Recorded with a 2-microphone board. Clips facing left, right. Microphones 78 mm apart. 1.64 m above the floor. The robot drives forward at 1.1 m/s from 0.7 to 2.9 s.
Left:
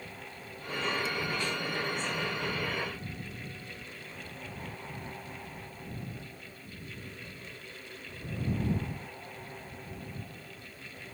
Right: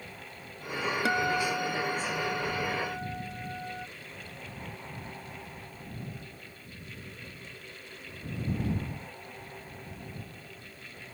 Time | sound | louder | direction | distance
1.1 | a guitar | right 6 dB | 70° right (ahead or behind) | ?